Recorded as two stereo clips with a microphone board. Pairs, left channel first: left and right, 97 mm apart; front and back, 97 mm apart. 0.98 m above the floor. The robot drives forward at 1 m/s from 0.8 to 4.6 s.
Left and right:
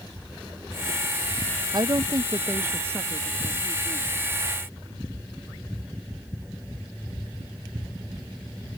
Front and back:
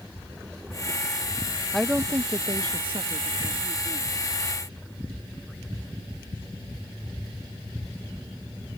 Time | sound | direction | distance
1.7 | a woman speaking | 85° right | ?